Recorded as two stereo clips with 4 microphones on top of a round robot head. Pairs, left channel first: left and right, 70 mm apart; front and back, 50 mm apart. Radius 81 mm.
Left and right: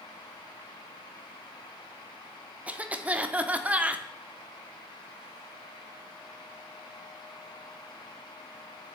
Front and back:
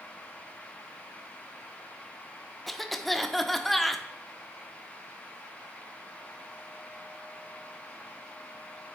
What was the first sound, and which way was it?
A cough, 85° right.